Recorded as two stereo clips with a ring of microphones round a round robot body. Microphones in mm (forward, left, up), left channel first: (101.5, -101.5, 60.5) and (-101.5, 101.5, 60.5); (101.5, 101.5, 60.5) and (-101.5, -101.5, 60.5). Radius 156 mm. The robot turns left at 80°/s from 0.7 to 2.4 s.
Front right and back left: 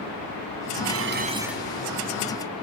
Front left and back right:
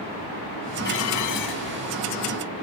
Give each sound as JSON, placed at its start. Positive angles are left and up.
{"t": 0.8, "sound": "dishes clattering", "azimuth_deg": 100}